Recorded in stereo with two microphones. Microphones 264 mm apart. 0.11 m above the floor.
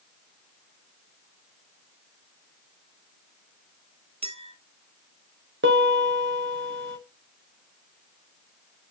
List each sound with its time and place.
4.2 s a clink: 25° right (ahead or behind), 0.8 m
5.6 s a piano: 45° right (ahead or behind), 3 m